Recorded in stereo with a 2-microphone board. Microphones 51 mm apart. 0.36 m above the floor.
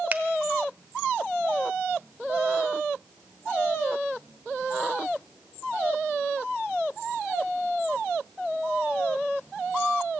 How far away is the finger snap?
About 1.0 m.